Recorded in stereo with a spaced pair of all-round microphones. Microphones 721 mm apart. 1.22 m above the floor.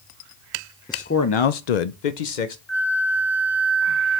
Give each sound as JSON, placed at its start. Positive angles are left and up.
{"t": 0.9, "sound": "a man speaking", "side_deg": 5, "distance_m": 0.6}
{"t": 2.7, "sound": "a flute", "side_deg": 65, "distance_m": 2.0}